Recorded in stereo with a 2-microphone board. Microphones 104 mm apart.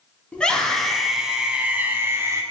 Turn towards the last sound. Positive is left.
turn(degrees=-25)  # may be behind; listen again after turning